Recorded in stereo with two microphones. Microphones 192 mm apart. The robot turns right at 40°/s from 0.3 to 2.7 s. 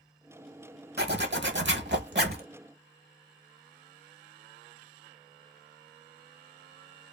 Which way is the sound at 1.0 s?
115° right.